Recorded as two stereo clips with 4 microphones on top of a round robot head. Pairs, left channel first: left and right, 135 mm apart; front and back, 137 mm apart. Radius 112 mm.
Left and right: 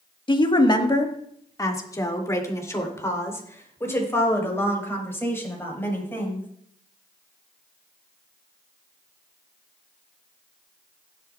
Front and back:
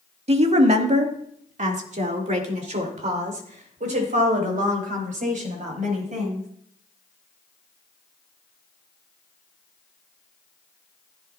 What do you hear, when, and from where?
0.3 s a woman speaking: 140° left, 1.4 m; by 6.5 s 165° left, 5.5 m